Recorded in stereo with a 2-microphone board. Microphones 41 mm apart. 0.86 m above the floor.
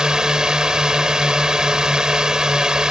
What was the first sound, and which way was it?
A drone, 20° right (ahead or behind).